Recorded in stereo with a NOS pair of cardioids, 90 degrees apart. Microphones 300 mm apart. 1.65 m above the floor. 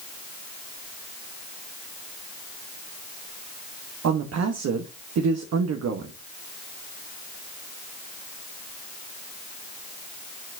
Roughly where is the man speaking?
Ahead right.